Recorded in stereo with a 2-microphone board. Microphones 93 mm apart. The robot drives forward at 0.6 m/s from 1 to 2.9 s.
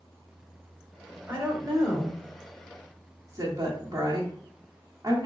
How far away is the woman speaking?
About 2 m.